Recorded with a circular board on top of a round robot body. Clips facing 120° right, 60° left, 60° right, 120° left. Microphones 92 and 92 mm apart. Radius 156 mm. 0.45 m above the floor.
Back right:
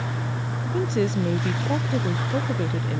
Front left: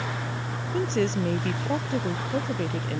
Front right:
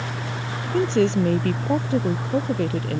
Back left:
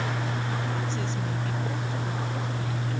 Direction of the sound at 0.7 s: 35° right.